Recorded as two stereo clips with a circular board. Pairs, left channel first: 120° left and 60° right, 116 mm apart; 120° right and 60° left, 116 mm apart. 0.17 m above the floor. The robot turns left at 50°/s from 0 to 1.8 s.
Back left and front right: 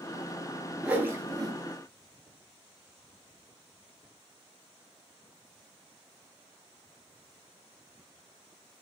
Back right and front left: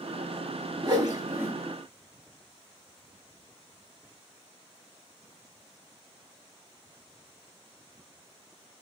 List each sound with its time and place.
0.8 s a whoosh: 20° left, 0.5 m; by 1.5 s 15° right, 0.5 m